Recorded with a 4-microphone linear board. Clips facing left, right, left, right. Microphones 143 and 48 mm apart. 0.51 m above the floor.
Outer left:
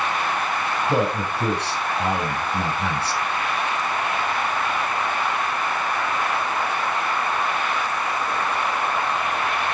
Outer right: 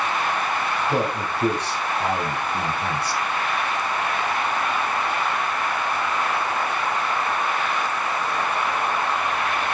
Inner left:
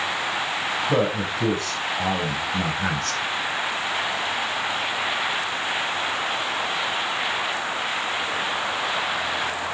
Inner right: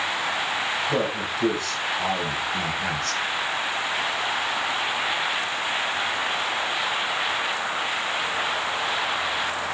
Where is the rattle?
No rattle in this recording.